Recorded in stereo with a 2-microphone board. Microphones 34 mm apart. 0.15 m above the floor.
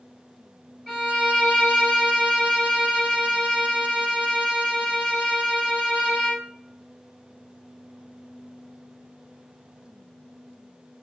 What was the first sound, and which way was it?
A violin, 10° left (ahead or behind).